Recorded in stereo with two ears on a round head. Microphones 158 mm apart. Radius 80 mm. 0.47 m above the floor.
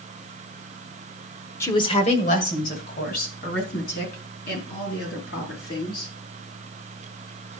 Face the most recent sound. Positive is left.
turn(degrees=60)  # may be behind; listen again after turning